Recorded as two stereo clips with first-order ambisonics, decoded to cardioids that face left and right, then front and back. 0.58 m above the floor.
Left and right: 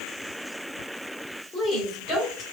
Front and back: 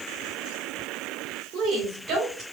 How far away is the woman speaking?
About 2 m.